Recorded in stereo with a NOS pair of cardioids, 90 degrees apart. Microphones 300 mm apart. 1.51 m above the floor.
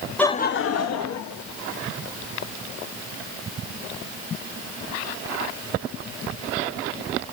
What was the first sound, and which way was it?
Laughter, 5° left.